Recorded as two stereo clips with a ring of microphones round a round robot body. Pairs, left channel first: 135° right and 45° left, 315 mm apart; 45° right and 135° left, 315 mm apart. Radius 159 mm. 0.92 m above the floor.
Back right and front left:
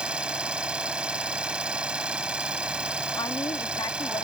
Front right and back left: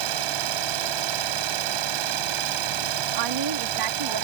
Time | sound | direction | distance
0.0 | an engine running | 130° left | ?
3.2 | a woman speaking | 145° left | ?